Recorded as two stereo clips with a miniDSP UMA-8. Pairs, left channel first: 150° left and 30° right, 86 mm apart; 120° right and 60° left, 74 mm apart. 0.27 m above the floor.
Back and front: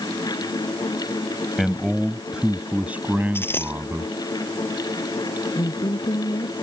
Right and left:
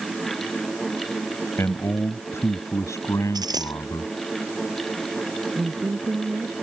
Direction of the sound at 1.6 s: 120° right.